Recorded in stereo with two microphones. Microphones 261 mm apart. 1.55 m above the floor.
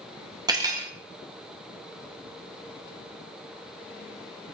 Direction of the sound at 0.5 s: 15° right (ahead or behind).